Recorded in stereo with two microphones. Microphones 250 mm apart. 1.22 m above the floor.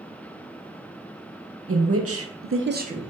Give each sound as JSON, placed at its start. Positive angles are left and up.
{"t": 1.7, "sound": "a woman speaking", "side_deg": -60, "distance_m": 1.0}